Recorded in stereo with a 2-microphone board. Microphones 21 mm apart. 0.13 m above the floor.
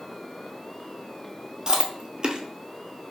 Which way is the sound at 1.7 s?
35° right (ahead or behind).